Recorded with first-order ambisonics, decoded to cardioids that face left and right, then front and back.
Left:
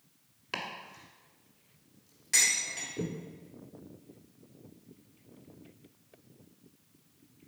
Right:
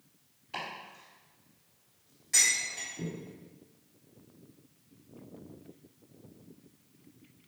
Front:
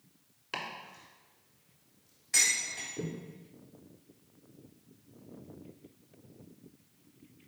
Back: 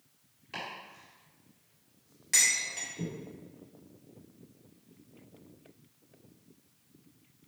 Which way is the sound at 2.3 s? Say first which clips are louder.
Even, back 1 dB; 155° left.